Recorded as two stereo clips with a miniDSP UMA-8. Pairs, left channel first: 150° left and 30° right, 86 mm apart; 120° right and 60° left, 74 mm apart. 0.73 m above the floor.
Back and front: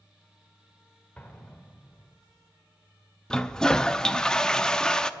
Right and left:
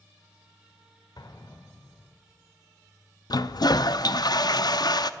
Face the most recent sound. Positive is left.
turn(degrees=-130)